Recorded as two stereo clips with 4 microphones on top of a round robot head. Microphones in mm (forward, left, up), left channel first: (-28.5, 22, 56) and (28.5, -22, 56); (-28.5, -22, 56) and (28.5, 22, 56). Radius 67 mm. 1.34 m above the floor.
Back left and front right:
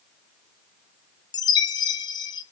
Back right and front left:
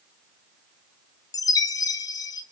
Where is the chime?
175° left, 0.7 m.